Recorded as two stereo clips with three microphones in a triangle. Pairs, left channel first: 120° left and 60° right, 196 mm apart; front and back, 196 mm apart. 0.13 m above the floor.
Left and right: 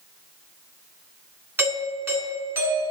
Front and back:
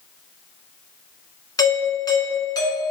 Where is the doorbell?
5° right, 1.6 m.